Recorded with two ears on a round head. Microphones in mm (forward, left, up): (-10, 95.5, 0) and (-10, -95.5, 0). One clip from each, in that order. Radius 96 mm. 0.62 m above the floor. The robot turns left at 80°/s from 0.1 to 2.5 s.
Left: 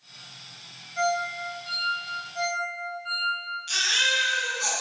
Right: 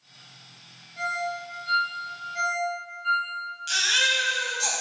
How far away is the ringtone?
About 1.8 m.